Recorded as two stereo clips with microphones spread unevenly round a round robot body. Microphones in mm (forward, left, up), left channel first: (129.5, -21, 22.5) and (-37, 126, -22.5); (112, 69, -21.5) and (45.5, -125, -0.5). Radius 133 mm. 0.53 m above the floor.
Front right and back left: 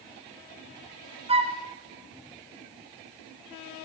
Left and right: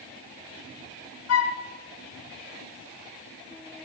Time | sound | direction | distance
1.3 | a flute | 75° left | 1.4 m